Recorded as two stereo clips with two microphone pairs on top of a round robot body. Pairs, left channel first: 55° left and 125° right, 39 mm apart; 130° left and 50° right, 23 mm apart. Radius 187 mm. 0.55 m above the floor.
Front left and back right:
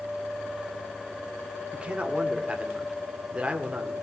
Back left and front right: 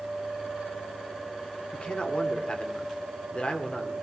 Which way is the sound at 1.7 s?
170° left.